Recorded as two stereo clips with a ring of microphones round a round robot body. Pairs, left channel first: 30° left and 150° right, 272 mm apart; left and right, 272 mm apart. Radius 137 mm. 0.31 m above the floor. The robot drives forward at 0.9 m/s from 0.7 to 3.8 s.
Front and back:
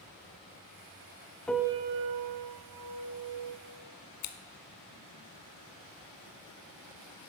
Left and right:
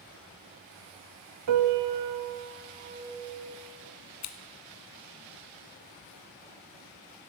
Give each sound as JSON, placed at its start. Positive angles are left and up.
{"t": 1.5, "sound": "a piano", "azimuth_deg": -55, "distance_m": 0.6}
{"t": 4.2, "sound": "scissors", "azimuth_deg": 55, "distance_m": 1.2}